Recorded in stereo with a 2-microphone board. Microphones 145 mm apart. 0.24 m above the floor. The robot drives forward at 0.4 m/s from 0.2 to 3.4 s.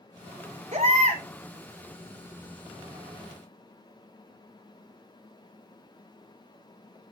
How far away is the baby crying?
About 1.4 m.